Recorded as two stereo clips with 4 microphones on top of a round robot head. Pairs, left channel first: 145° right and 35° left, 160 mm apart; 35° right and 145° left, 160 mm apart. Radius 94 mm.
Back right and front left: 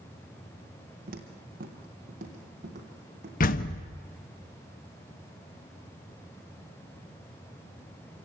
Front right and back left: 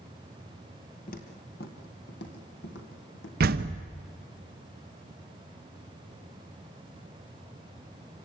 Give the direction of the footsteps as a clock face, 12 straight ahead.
12 o'clock.